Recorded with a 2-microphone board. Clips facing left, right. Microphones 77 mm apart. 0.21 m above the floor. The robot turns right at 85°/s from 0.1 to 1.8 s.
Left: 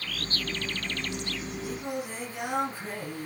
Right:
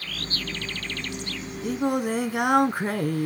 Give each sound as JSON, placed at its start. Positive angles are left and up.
{"t": 1.6, "sound": "singing", "side_deg": -70, "distance_m": 0.8}